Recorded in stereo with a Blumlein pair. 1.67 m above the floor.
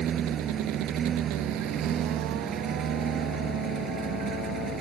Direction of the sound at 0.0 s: 25° right.